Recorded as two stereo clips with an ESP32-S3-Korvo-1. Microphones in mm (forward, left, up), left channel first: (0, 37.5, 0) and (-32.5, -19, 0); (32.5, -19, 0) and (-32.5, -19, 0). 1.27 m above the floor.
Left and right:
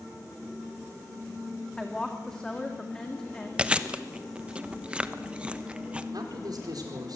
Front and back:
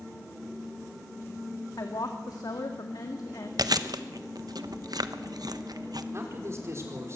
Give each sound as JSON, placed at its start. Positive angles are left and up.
{"t": 1.8, "sound": "a woman speaking", "azimuth_deg": -20, "distance_m": 2.0}
{"t": 3.6, "sound": "chewing", "azimuth_deg": 165, "distance_m": 1.0}
{"t": 6.1, "sound": "a man speaking", "azimuth_deg": -130, "distance_m": 4.5}